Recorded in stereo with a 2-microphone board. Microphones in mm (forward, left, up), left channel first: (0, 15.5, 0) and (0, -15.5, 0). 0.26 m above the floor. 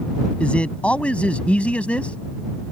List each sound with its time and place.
0.4 s a man speaking: 45° left (ahead or behind); by 2.2 s 50° left (ahead or behind)